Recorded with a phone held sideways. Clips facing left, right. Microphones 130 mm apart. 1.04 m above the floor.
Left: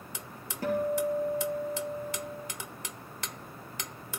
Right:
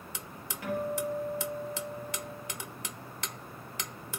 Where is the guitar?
40° left (ahead or behind), 3.5 m.